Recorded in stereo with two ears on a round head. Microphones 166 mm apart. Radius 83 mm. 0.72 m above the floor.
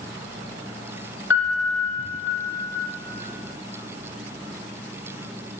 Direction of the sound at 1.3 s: 80° left.